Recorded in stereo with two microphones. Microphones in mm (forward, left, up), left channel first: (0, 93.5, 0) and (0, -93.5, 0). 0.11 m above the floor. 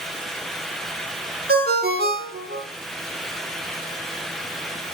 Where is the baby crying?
No baby crying in this recording.